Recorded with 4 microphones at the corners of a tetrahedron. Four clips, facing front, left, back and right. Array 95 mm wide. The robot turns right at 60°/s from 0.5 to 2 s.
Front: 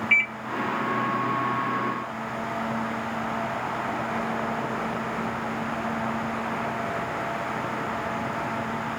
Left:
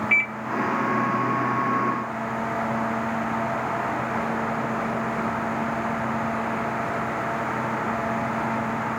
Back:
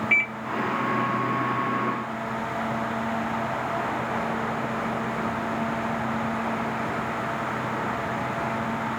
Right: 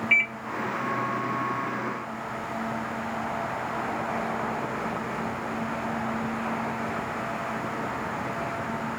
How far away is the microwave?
About 0.7 m.